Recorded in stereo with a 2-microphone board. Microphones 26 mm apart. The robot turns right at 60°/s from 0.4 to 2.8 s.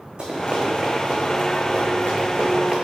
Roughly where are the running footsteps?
Right.